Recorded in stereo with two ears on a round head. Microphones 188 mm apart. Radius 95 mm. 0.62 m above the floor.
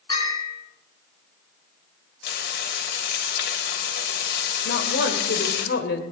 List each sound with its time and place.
0.1 s a bell: 20° left (ahead or behind), 8 m
2.2 s frying: 55° left (ahead or behind), 3 m
4.7 s a woman speaking: 55° left (ahead or behind), 2.5 m